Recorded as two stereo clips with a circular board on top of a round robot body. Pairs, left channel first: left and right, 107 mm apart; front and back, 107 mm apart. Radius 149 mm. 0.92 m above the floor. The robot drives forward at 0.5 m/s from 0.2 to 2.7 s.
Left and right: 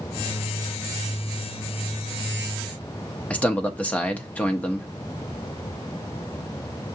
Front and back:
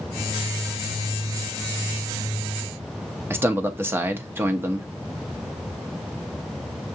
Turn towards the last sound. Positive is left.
turn(degrees=145)